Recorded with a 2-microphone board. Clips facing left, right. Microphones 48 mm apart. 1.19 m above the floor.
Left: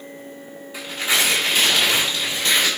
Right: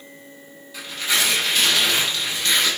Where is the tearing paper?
25° left (ahead or behind), 4.5 m.